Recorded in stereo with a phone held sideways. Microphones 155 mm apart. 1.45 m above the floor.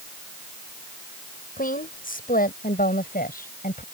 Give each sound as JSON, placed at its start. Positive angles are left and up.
{"t": 1.6, "sound": "a woman speaking", "side_deg": 65}